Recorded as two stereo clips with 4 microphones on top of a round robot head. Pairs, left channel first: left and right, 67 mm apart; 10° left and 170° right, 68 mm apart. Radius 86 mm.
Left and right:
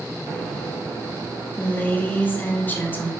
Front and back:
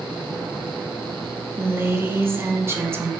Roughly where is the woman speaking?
Behind left.